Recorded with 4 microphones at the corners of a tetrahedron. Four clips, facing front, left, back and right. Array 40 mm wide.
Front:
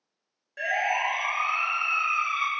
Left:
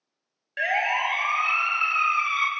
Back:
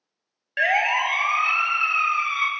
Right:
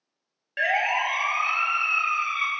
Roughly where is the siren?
Behind.